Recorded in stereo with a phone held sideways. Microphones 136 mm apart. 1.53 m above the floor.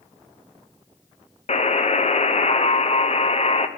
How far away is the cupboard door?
No cupboard door in this recording.